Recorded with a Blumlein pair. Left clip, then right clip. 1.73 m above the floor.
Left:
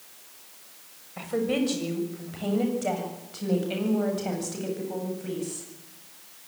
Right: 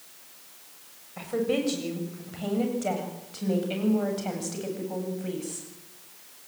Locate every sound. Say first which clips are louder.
1.2 s a woman speaking: even; 5° left, 7 m; by 5.7 s 5° right, 9.5 m